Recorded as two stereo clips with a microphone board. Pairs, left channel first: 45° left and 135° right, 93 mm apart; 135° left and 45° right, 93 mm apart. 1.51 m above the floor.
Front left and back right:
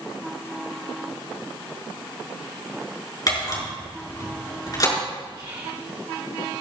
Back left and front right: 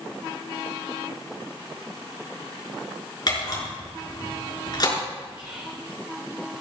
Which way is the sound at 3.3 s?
90° left.